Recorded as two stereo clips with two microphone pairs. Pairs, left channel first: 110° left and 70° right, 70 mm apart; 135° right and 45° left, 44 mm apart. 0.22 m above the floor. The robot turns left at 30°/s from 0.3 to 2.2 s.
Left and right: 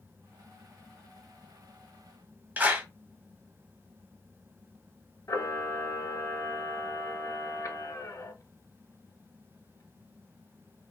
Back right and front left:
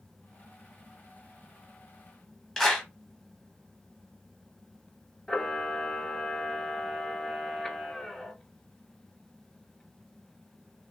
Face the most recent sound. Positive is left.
turn(degrees=145)